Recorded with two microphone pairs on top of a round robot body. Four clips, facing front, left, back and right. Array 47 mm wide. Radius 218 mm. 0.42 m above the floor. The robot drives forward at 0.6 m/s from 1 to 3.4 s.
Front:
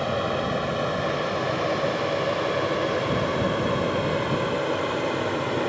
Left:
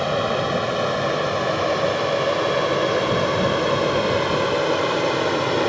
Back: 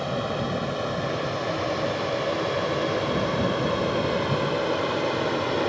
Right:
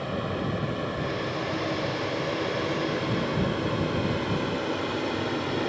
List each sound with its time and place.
0.0 s an aircraft: 80° left; by 5.7 s 95° left